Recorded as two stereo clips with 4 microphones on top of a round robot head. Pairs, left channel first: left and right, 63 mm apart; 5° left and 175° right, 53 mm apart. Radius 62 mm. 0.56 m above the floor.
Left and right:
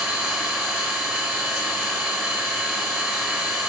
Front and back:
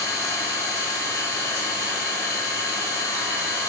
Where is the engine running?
20° right, 4.5 m.